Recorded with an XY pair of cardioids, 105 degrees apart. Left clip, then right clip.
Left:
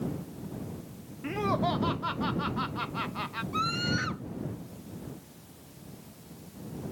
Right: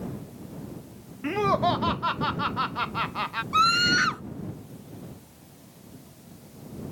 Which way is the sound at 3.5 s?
60° right.